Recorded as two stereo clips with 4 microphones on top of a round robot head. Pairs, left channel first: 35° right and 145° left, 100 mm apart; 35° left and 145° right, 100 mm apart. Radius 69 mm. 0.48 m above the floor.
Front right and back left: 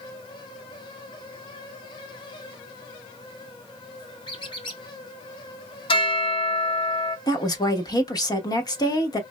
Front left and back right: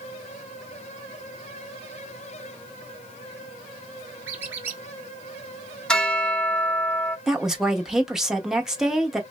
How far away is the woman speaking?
About 0.9 m.